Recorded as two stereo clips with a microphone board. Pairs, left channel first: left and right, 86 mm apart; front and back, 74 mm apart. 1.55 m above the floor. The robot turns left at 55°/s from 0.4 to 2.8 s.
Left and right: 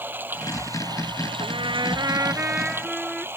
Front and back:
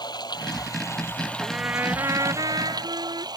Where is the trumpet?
100° right; by 3.3 s 175° right.